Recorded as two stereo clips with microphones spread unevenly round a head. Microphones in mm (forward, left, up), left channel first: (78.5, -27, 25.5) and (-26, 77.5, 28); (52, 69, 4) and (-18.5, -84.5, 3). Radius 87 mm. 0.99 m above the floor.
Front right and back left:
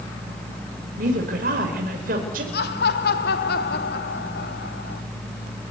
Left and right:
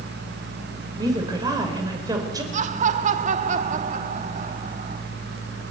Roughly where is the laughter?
Right.